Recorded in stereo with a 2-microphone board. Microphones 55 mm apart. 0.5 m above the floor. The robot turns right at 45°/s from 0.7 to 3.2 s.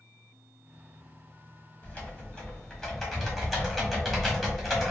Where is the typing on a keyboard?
25° left (ahead or behind), 1.1 m; by 4.9 s 5° left (ahead or behind), 1.1 m.